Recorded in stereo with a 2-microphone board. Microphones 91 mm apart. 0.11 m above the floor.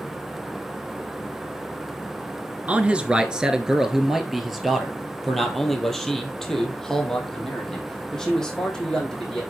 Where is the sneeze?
I don't hear a sneeze.